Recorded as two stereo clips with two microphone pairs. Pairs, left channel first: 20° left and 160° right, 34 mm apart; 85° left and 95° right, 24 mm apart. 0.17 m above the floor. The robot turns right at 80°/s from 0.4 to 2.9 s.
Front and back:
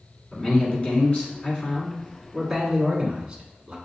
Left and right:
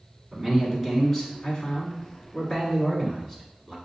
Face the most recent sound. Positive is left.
turn(degrees=140)